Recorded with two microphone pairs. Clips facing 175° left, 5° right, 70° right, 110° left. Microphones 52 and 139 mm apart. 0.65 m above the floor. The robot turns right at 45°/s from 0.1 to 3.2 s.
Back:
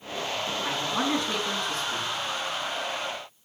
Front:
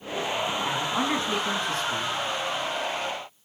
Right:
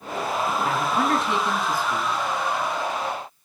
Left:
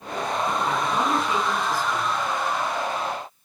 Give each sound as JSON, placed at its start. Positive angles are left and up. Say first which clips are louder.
{"t": 0.6, "sound": "a man speaking", "louder": "back 1 dB, right 1 dB", "azimuth_deg": -90, "distance_m": 5.5}